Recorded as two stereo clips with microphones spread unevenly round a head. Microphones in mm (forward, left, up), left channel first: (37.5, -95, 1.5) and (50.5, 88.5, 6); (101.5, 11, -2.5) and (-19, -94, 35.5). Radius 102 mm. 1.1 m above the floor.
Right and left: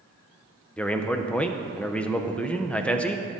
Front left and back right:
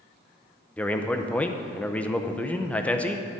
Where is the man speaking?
15° right, 0.7 m.